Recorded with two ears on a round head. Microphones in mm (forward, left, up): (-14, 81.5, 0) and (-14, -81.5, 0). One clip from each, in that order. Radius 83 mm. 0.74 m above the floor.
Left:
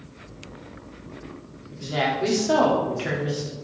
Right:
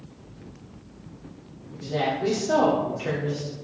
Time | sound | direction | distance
1.7 | a woman speaking | 45° left (ahead or behind) | 1.9 m